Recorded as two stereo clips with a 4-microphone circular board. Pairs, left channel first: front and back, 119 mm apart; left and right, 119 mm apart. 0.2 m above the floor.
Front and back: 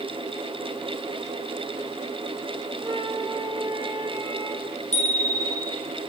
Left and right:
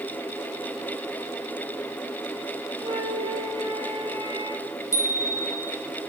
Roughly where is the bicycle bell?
Ahead left.